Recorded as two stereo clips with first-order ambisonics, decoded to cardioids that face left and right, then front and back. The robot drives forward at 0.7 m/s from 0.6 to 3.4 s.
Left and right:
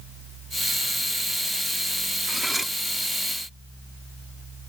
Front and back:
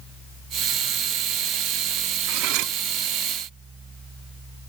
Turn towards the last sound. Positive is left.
turn(degrees=-175)